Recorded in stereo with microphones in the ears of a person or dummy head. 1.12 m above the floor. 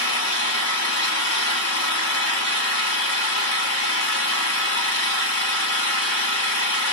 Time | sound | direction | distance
0.0 | an engine running | 60° left (ahead or behind) | 0.9 m